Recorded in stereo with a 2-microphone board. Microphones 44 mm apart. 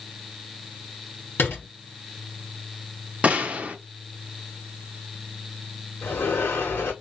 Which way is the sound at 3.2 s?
30° right (ahead or behind).